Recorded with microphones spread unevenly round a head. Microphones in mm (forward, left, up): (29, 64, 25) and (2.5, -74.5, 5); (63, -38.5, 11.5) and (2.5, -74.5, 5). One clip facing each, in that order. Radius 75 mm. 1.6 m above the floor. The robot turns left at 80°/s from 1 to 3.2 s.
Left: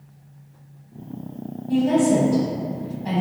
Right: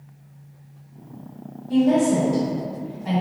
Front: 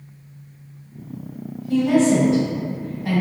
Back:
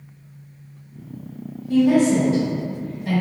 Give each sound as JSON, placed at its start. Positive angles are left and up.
{"t": 1.7, "sound": "a woman speaking", "azimuth_deg": 130, "distance_m": 1.1}